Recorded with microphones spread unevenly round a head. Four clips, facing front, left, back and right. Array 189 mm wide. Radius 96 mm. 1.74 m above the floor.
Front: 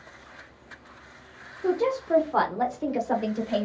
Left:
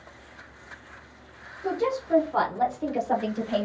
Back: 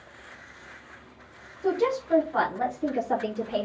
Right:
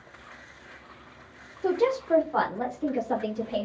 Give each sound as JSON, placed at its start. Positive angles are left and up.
{"t": 1.6, "sound": "a woman speaking", "azimuth_deg": -85, "distance_m": 0.8}